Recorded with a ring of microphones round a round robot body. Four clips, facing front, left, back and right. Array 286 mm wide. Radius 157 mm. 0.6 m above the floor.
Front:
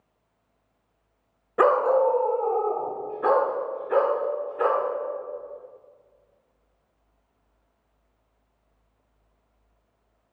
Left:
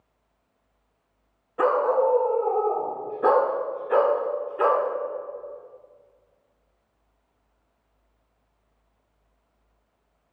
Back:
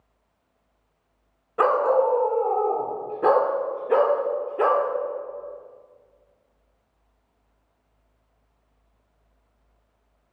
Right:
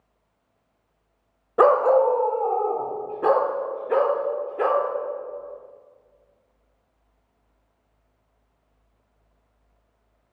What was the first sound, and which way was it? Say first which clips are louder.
A dog barking: right 5 dB, even; 70° right.